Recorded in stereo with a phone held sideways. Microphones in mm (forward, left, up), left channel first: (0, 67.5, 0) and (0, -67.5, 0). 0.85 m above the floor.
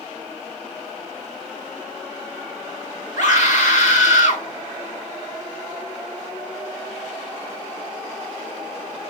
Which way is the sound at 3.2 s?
65° left (ahead or behind).